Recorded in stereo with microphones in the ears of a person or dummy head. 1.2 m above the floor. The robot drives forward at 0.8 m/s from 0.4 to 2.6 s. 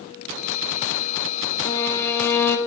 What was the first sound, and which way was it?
A violin, 25° left (ahead or behind).